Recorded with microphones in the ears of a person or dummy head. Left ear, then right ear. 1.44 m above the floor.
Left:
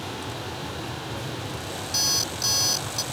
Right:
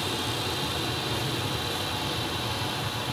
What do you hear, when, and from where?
0.0 s an aircraft: 30° right (ahead or behind)
1.9 s an alarm clock: 85° left